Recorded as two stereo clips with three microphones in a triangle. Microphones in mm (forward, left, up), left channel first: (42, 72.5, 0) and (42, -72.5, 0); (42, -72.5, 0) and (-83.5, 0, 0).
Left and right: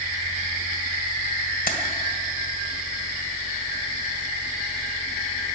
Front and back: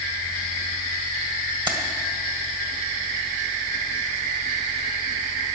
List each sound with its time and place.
1.7 s keys jangling: 95° left, 1.8 m